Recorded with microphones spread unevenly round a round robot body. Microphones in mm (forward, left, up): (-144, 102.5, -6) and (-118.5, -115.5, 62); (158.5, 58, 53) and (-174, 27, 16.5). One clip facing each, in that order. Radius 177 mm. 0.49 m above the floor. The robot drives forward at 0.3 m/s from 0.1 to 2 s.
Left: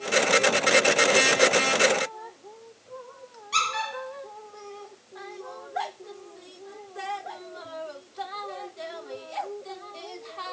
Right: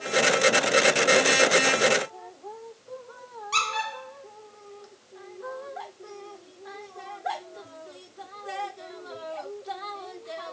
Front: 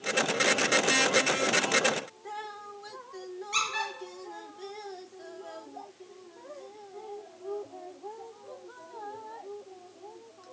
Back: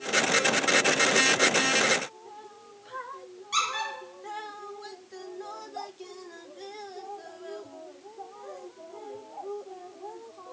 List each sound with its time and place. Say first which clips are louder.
3.5 s a squeak: left 1 dB, even; 115° right, 3 m